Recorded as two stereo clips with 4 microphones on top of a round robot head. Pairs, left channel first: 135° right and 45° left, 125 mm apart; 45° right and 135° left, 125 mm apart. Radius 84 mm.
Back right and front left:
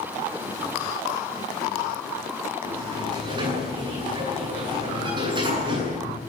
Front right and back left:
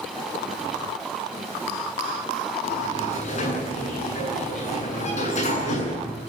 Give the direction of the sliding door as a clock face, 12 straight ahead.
12 o'clock.